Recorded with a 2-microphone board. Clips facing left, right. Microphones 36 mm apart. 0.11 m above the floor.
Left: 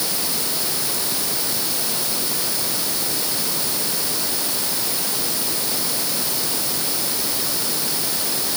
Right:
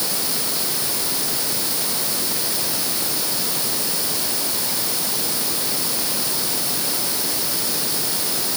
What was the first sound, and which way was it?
Only background noise.